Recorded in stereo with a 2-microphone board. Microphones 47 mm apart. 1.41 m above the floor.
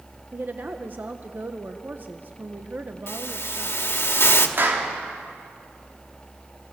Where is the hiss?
65° left (ahead or behind), 1.8 m.